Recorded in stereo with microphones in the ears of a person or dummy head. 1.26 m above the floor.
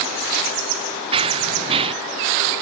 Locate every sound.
1.1 s running footsteps: 30° right (ahead or behind)